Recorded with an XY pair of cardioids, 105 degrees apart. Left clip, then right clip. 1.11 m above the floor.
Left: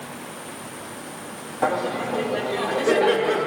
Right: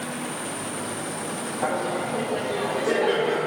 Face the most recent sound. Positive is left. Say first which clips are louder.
# left 3 dB
turn(degrees=40)